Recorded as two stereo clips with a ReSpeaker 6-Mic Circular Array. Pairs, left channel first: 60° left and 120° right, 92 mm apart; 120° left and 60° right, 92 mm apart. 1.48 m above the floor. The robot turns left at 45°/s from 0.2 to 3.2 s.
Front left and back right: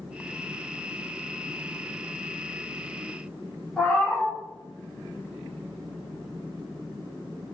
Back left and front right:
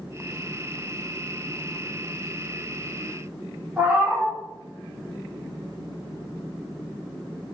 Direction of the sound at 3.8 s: 15° right.